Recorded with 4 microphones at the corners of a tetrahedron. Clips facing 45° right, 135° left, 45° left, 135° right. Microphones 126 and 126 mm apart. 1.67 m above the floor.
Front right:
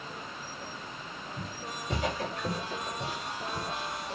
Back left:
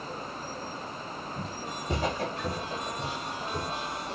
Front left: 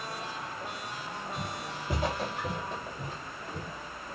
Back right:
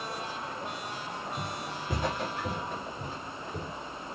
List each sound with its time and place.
1.4 s footsteps: 105° left, 2 m; by 3.7 s 175° left, 1.7 m